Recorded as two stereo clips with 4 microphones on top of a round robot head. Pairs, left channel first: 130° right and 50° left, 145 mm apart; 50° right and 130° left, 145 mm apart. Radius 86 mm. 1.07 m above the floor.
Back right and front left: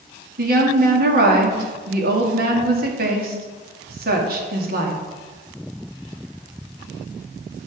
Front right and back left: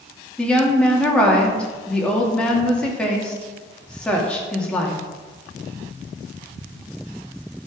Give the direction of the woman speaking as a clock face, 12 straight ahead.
11 o'clock.